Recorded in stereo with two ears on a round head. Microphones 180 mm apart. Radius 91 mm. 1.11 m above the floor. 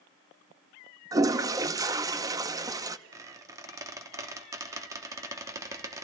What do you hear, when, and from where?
1.1 s a toilet flushing: 20° right (ahead or behind), 0.6 m
3.1 s a squeak: 15° right (ahead or behind), 1.1 m